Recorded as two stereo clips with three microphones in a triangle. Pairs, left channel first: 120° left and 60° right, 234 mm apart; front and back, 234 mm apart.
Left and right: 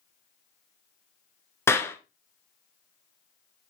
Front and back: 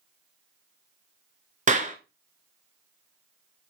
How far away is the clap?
About 1.0 m.